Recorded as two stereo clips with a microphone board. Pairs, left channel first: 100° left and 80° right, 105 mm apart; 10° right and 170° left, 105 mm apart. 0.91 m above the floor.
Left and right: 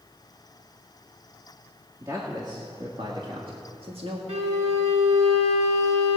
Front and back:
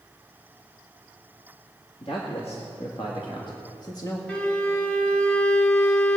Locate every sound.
2.0 s a man speaking: 25° right, 1.8 m; by 4.2 s 65° right, 1.5 m
4.3 s a violin: 90° right, 1.3 m